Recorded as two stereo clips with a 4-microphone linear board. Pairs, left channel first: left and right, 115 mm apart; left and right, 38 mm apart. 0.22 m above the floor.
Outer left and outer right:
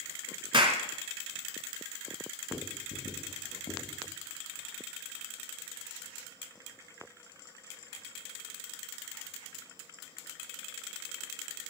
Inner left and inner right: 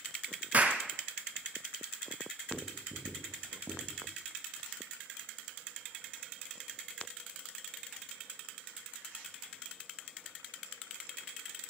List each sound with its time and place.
0.5 s a clap: 45° right (ahead or behind), 2 m
2.5 s writing: 90° left, 7 m